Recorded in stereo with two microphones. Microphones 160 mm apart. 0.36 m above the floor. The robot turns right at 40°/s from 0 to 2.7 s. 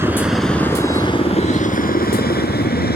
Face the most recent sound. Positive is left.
turn(degrees=75)  # may be behind; listen again after turning